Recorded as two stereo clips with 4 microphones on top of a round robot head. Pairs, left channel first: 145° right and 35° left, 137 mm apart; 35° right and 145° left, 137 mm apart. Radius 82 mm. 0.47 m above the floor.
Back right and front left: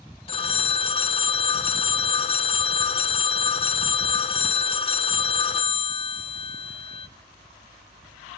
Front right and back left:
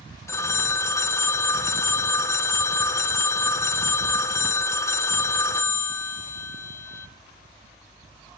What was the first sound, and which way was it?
A phone ringing, 100° right.